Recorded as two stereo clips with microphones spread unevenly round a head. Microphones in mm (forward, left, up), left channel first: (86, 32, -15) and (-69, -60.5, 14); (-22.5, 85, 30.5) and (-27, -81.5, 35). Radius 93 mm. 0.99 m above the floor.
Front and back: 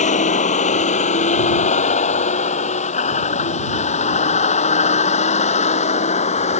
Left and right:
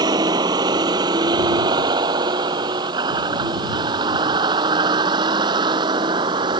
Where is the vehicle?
20° right; by 6.6 s 25° right.